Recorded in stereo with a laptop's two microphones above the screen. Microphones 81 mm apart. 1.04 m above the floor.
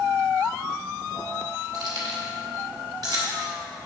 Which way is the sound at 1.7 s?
50° right (ahead or behind).